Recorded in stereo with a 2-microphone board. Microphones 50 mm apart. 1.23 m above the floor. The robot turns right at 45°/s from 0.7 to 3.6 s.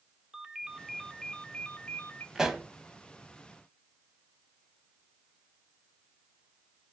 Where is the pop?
10° right (ahead or behind), 1.2 m; by 2.6 s 5° right (ahead or behind), 1.2 m.